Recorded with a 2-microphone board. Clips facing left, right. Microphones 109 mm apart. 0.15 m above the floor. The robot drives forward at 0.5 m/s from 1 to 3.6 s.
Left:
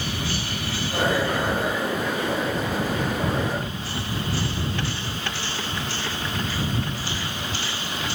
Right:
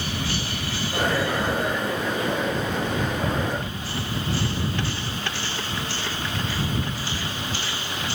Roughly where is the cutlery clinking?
I don't hear cutlery clinking.